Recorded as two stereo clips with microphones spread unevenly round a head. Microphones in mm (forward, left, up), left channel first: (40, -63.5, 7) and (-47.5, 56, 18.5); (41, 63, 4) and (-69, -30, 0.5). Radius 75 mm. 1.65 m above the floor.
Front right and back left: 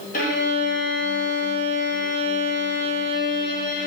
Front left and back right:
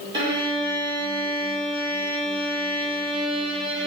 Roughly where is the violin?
Right.